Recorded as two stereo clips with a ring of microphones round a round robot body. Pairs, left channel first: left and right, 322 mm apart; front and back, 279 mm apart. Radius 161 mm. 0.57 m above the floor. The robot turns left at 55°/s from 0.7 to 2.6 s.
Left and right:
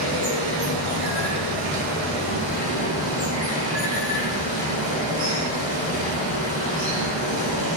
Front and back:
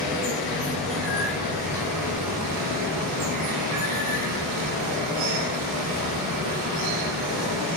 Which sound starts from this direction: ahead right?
Running water, at 0.0 s.